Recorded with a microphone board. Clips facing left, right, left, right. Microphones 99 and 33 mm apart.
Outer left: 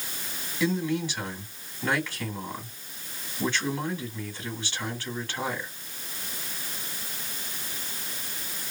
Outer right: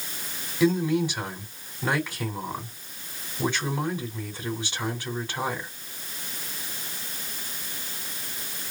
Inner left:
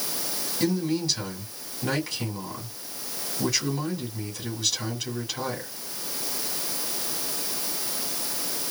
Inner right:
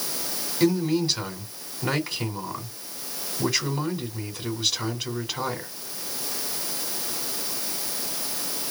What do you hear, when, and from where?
0.6 s a man speaking: 15° right (ahead or behind), 1.9 m